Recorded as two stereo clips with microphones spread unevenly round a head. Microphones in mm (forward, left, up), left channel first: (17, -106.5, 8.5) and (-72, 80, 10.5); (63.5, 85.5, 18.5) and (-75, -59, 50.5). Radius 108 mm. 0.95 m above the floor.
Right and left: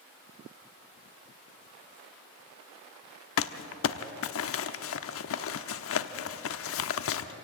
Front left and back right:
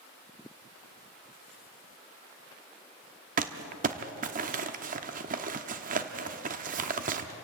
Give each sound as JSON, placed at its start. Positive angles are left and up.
{"t": 3.4, "sound": "crumpling", "azimuth_deg": -85, "distance_m": 1.0}